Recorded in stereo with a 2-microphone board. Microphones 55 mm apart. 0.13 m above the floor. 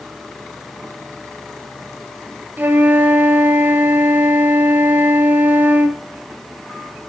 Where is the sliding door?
I don't hear a sliding door.